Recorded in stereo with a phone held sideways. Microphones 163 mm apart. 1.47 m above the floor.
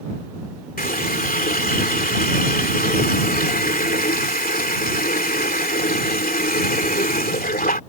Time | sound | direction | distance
0.8 | a running tap | 65° left (ahead or behind) | ?